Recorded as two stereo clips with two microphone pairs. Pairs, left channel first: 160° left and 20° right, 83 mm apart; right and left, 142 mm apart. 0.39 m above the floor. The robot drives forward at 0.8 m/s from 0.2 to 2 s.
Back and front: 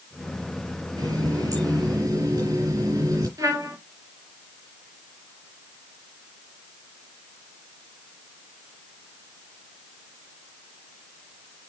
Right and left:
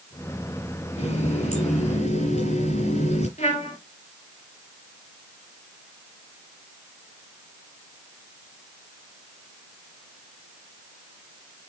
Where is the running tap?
55° right, 6 m; by 3.3 s 60° right, 6 m.